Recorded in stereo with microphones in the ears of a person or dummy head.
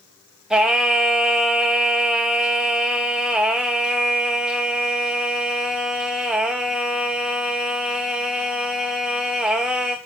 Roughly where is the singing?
Centre.